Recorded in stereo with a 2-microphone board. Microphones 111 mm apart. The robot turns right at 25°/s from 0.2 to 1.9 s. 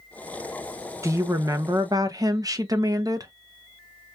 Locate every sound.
1.0 s a woman speaking: 30° right (ahead or behind), 0.6 m; by 3.3 s 35° right (ahead or behind), 0.6 m